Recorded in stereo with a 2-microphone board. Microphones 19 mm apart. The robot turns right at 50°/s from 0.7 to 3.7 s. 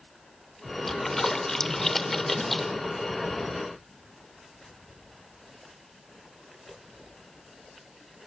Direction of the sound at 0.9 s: 15° left (ahead or behind).